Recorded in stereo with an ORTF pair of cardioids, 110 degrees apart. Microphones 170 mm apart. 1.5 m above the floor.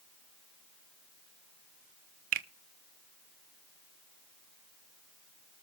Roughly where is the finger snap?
Ahead right.